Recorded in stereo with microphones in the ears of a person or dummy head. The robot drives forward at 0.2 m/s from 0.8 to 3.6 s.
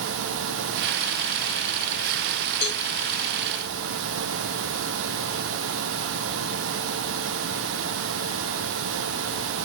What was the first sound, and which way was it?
A cowbell, 60° left (ahead or behind).